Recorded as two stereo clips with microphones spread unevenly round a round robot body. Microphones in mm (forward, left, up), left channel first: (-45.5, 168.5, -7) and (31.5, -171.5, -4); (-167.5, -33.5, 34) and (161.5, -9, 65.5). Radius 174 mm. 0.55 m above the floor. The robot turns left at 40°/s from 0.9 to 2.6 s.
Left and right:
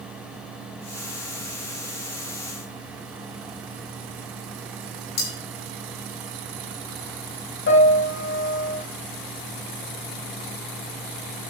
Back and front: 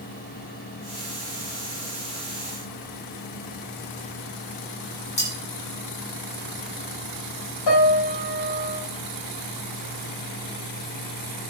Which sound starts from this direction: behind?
A piano, at 7.7 s.